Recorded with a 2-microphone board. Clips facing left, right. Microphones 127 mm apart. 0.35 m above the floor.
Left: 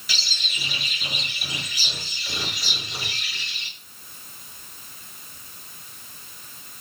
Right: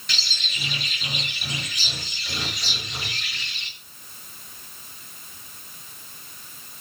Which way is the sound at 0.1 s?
5° left (ahead or behind).